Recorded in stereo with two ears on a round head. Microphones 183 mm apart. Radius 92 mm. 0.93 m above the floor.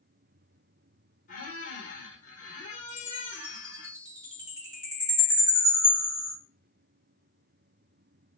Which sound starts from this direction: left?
A squeak, at 1.3 s.